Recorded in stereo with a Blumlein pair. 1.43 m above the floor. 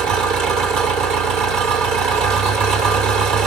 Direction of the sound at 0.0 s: 40° right.